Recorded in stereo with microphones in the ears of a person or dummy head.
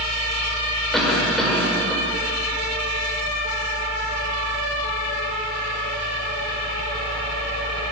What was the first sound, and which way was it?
A cough, centre (ahead or behind).